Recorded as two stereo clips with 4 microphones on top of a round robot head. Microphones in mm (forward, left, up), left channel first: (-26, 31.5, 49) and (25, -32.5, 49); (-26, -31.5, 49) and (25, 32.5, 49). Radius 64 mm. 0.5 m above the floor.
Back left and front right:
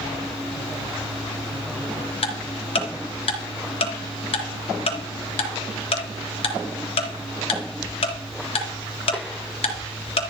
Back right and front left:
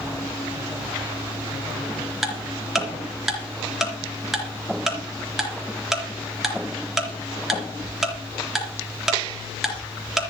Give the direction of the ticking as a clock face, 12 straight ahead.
7 o'clock.